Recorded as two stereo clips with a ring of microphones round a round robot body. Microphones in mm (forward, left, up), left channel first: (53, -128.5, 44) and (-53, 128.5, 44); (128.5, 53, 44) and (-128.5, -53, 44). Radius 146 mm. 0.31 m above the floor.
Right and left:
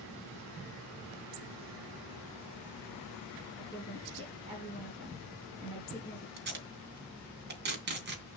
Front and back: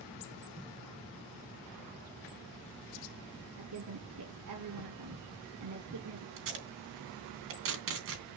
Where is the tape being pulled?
165° left, 3 m.